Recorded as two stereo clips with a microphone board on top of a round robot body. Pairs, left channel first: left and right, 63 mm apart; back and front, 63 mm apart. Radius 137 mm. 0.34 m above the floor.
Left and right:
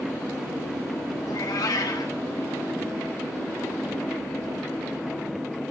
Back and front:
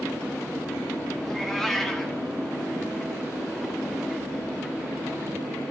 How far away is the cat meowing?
About 1.7 m.